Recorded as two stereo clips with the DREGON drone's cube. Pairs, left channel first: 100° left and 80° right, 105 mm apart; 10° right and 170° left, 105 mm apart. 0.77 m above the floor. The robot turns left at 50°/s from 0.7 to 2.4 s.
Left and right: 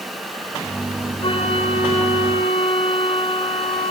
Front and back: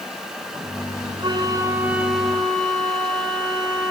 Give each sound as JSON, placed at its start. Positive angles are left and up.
{"t": 1.2, "sound": "a flute", "azimuth_deg": 130, "distance_m": 2.5}